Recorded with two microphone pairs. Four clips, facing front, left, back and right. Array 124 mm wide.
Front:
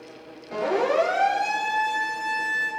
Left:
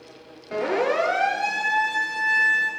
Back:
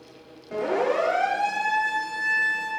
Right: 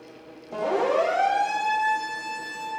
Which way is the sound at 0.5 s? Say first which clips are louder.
Even, front 1 dB; 70° left.